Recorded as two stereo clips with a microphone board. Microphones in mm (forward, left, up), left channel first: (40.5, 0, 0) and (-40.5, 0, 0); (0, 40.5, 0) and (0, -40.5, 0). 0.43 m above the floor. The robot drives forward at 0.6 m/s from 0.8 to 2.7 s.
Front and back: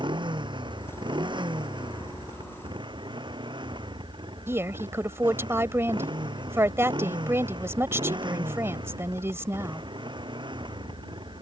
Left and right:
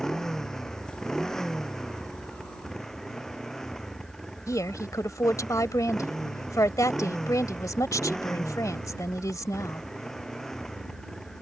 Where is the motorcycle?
175° left.